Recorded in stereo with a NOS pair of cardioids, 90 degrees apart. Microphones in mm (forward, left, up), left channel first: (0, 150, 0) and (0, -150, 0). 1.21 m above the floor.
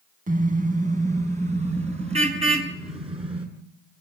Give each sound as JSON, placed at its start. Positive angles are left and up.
{"t": 0.3, "sound": "a car horn", "azimuth_deg": -25, "distance_m": 4.0}